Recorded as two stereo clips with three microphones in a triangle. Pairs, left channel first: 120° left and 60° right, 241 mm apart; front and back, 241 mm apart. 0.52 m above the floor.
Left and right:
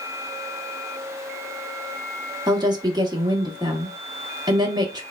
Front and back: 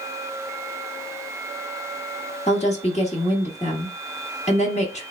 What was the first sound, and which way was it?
A woman speaking, 5° right.